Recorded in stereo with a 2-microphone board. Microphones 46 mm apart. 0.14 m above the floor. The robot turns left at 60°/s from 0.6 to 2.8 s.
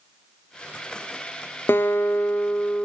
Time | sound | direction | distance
1.7 | a guitar | 110° left | 0.8 m